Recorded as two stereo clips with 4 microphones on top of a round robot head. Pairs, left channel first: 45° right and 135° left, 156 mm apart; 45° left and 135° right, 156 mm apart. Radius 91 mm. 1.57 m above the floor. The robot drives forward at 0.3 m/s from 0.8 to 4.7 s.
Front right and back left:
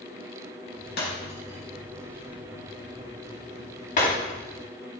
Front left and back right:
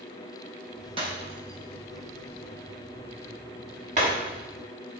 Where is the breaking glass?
75° right, 4.5 m; by 4.3 s 90° right, 4 m.